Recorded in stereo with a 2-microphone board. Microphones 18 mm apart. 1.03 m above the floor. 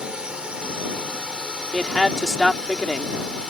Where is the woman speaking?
20° right (ahead or behind).